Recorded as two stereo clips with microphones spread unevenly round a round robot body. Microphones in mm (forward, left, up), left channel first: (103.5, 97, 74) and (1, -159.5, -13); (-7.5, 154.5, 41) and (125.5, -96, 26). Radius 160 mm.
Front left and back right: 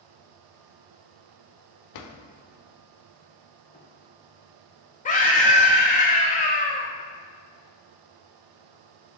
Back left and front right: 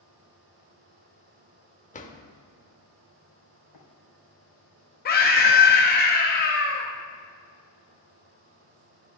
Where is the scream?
140° left, 0.7 m.